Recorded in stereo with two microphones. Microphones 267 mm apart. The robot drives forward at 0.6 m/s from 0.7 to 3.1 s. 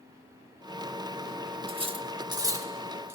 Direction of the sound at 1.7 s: 20° right (ahead or behind).